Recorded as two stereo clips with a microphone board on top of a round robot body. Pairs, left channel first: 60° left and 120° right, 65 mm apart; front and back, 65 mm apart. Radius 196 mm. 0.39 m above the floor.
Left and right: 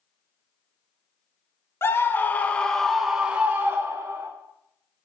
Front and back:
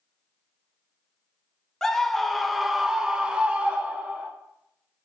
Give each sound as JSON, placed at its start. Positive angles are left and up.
{"t": 1.8, "sound": "a scream", "azimuth_deg": 80, "distance_m": 1.5}